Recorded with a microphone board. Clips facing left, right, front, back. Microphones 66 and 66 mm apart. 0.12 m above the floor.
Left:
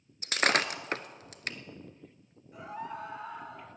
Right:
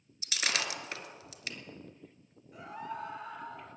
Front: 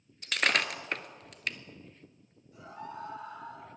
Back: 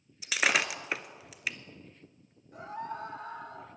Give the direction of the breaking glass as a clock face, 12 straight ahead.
9 o'clock.